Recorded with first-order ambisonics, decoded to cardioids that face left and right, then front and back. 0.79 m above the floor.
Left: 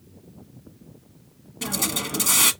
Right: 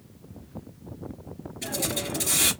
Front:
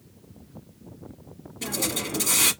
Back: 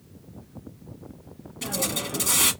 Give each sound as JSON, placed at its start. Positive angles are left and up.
{"t": 1.6, "sound": "a hiss", "azimuth_deg": 100, "distance_m": 1.2}